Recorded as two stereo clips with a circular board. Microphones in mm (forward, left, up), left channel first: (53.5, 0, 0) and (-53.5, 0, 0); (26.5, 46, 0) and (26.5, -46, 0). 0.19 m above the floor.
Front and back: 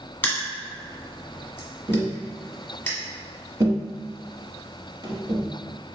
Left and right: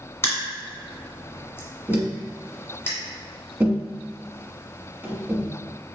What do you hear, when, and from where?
0.2 s crushing: 55° left, 1.4 m
1.9 s tapping: 155° right, 1.2 m